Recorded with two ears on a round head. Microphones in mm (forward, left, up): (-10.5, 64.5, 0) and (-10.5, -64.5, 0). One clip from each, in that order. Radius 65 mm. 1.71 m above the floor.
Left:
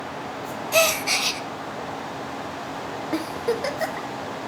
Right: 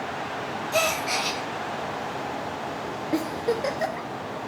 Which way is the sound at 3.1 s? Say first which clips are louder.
Even; 25° left (ahead or behind).